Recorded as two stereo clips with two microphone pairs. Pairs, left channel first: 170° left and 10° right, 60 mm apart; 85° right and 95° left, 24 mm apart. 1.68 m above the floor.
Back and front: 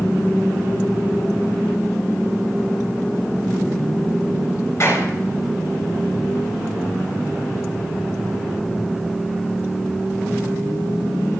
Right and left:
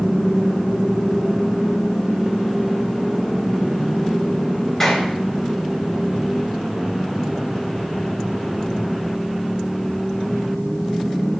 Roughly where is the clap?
Behind right.